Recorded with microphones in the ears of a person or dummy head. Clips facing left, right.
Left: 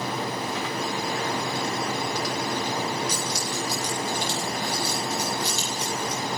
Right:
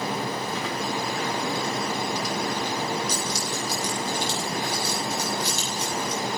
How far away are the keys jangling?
About 9 m.